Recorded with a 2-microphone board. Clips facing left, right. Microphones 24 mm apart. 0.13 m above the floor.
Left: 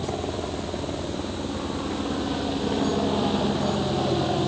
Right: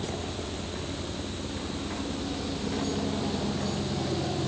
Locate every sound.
0.0 s a helicopter: 45° left (ahead or behind)